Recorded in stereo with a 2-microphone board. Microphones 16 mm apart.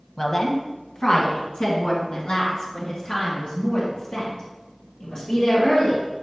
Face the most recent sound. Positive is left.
turn(degrees=80)